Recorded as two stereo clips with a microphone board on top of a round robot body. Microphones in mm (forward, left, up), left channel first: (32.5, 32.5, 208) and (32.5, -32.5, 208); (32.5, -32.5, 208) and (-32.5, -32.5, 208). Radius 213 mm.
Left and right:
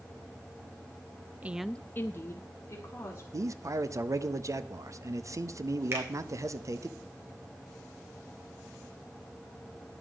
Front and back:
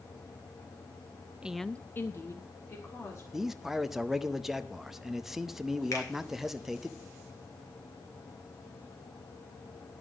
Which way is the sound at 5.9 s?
35° right.